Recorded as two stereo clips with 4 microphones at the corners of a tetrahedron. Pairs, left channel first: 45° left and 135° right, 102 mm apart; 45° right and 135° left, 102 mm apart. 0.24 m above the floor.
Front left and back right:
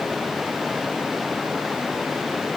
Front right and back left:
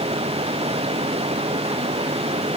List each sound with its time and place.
0.0 s running water: 135° left